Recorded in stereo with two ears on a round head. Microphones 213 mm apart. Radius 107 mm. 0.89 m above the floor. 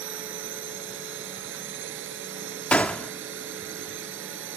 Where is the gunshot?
5° left (ahead or behind).